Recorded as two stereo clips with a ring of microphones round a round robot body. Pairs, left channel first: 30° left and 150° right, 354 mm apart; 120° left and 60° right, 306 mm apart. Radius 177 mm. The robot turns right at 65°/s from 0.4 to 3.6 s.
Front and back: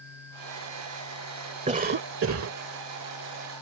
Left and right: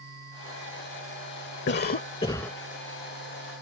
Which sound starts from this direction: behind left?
A cough, at 1.7 s.